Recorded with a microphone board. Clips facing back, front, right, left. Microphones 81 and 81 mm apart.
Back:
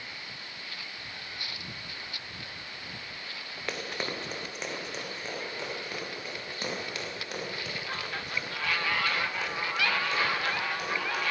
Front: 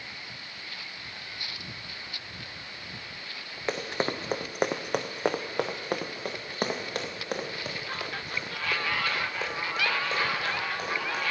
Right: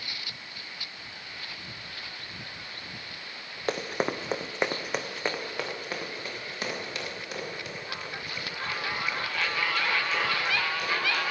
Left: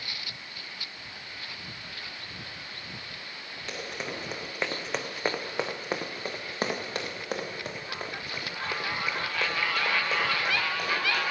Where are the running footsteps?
65° right, 1.4 m; by 11.2 s 55° left, 6.5 m.